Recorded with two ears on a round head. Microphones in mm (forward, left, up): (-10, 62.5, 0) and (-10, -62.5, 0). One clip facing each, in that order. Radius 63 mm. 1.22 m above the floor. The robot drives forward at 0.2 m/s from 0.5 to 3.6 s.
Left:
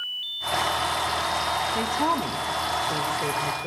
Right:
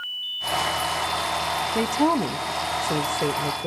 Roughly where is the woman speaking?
Right.